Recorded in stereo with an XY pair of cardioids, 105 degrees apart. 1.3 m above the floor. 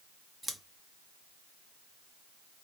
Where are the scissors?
15° right, 0.8 m.